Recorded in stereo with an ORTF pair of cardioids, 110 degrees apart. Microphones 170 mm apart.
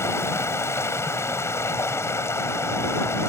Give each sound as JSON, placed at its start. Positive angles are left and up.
{"t": 0.0, "sound": "running water", "azimuth_deg": 15}